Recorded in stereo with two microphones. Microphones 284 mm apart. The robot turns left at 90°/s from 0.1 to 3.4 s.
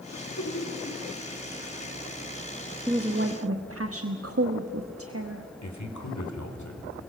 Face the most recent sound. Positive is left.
turn(degrees=85)